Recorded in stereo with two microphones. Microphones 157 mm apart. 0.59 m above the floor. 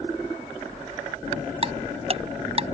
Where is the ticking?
40° right (ahead or behind).